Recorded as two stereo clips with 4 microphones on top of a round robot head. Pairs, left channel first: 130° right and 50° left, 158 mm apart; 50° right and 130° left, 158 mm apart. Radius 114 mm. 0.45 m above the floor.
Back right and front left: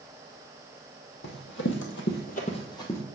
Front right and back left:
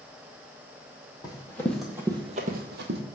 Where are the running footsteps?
115° right, 1.4 m; by 3.0 s 150° left, 1.3 m.